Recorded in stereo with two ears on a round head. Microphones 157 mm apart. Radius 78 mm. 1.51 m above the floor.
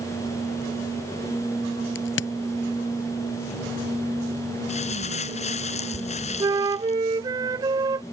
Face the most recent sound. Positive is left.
turn(degrees=-25)  # may be behind; listen again after turning